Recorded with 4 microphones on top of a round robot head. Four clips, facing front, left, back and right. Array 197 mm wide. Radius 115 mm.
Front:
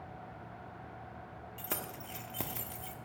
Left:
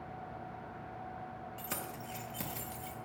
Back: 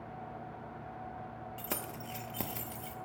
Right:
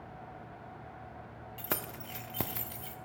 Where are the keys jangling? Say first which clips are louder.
Right 6 dB, even; 100° right, 0.5 m.